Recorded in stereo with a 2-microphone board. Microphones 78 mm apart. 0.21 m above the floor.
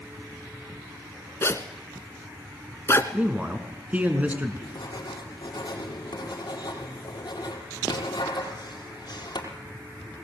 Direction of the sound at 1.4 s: 35° left (ahead or behind).